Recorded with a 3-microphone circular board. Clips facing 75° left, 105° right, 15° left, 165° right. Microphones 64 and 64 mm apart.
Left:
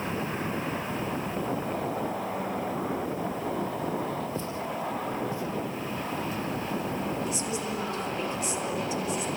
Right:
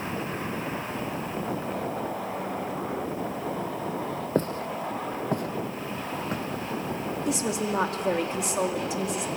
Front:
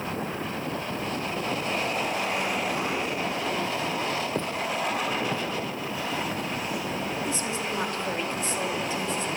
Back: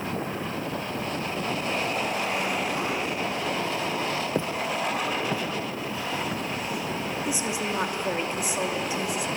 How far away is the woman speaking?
About 2.5 m.